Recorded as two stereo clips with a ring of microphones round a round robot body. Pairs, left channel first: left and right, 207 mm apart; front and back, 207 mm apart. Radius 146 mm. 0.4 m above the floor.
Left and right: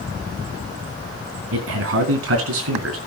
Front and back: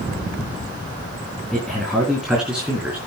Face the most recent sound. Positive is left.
turn(degrees=-95)